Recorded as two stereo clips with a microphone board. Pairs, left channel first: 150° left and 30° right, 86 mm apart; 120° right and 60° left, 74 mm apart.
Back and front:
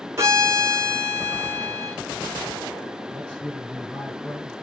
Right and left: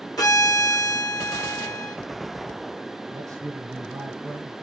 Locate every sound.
0.2 s a violin: 90° right, 1.4 m
3.1 s a man speaking: 70° left, 1.4 m